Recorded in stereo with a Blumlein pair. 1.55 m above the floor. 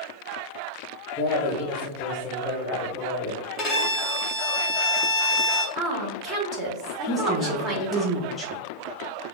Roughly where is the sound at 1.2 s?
Ahead.